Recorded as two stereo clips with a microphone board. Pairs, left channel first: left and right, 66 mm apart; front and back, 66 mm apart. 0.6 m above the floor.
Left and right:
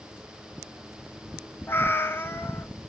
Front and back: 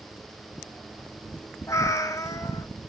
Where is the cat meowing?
35° left, 1.5 m.